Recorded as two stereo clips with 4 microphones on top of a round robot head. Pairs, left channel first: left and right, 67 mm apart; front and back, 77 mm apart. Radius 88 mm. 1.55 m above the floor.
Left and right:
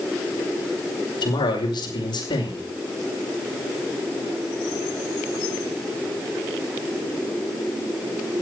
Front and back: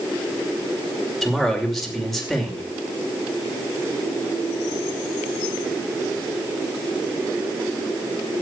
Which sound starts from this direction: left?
A man speaking, at 1.2 s.